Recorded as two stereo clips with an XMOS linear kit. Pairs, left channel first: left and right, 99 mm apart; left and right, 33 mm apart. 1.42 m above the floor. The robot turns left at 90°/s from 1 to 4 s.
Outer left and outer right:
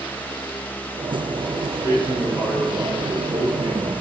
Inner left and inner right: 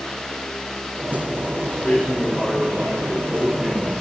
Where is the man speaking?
90° left, 6 m; by 3.9 s 120° right, 6 m.